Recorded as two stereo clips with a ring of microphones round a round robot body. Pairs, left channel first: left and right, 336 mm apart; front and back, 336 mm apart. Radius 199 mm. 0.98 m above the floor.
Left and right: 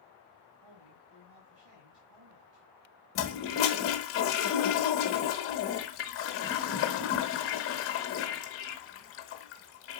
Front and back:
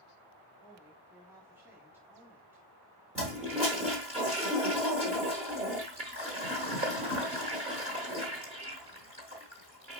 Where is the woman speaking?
95° right, 2 m.